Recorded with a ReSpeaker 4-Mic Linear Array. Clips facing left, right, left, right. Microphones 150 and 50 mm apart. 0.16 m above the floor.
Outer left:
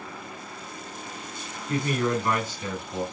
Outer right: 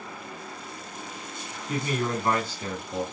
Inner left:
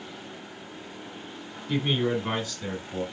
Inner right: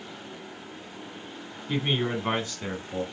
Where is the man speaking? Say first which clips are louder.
Outer left 3 dB, inner left 2 dB; 15° right (ahead or behind), 1.2 m; by 3.0 s 40° right (ahead or behind), 1.5 m.